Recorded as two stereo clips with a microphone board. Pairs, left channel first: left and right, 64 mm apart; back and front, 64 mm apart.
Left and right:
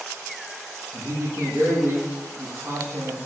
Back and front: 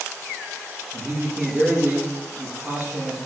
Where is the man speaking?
60° right, 9 m.